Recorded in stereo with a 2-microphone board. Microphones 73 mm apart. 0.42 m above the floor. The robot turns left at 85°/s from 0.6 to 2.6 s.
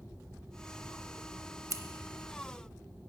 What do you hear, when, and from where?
1.7 s scissors: 50° right (ahead or behind), 0.7 m; by 1.8 s 40° right (ahead or behind), 0.7 m